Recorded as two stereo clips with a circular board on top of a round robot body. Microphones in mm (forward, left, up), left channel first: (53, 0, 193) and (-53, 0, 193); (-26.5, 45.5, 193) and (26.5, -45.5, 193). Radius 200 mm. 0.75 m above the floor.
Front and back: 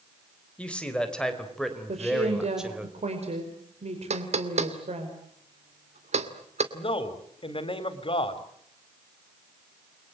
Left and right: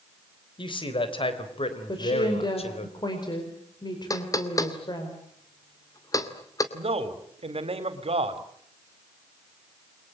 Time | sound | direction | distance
0.6 | a man speaking | 80° left | 4.5 m
1.9 | a woman speaking | 170° left | 5 m
4.1 | knocking | straight behind | 2.5 m
6.7 | a man speaking | 35° right | 3.5 m